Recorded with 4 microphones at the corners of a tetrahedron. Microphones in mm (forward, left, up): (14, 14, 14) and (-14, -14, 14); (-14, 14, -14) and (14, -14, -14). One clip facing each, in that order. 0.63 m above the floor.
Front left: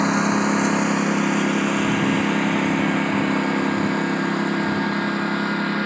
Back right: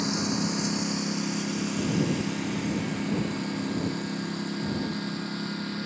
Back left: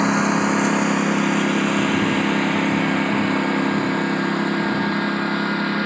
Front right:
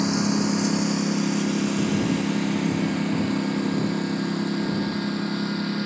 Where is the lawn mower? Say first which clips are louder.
Front left 9 dB, back left 5 dB; 90° left.